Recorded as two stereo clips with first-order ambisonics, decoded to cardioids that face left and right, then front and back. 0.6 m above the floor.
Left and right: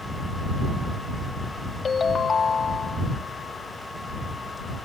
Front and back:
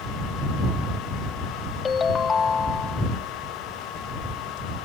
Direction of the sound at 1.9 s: 40° left.